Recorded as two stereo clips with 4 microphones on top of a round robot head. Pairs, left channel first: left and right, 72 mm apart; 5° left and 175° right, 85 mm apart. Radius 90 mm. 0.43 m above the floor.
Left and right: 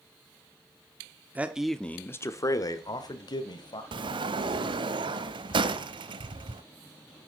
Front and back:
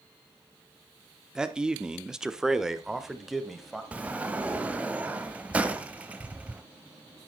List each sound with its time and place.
1.4 s a man speaking: 105° right, 1.0 m; by 3.8 s 100° left, 3 m
3.9 s a sliding door: 100° right, 0.8 m